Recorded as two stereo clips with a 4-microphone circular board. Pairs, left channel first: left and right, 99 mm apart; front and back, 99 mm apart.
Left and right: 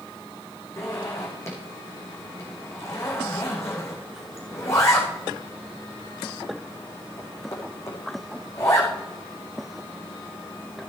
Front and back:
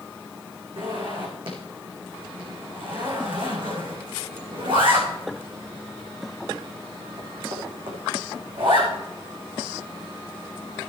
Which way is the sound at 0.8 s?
150° left.